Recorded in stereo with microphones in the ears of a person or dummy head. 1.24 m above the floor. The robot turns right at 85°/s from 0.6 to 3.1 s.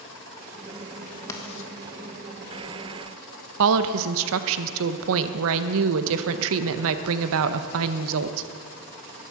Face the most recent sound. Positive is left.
turn(degrees=-85)